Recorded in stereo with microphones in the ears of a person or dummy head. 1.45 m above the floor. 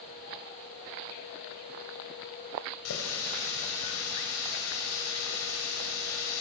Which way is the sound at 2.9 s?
80° left.